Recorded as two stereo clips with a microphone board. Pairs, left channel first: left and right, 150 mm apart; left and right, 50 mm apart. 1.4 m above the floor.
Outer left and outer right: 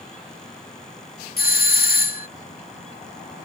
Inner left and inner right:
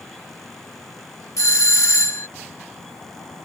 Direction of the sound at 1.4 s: 75° left (ahead or behind).